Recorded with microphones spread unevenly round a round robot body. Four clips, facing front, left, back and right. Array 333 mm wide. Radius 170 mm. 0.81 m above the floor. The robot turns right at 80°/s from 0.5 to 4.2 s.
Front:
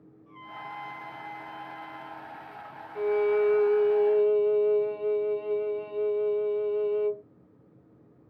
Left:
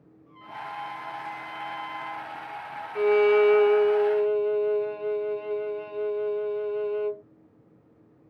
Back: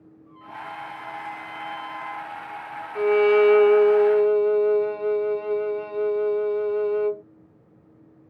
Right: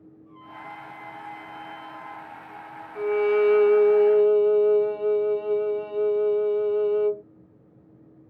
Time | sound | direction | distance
0.3 | a trumpet | 30° left | ?
3.0 | a violin | 150° left | ?